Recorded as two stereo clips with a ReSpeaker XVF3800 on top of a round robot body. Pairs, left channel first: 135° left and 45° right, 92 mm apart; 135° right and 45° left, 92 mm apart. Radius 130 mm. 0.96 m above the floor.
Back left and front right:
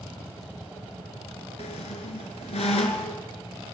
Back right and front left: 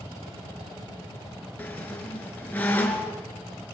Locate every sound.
1.6 s a squeak: 150° left, 2.5 m